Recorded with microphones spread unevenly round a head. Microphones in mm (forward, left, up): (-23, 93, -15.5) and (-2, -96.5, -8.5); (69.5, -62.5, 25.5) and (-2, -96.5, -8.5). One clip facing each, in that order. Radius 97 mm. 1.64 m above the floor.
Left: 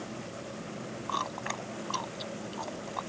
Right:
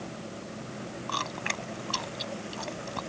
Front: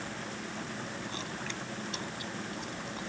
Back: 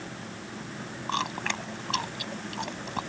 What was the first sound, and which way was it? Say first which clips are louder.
Chewing: right 1 dB, back 8 dB; 135° right.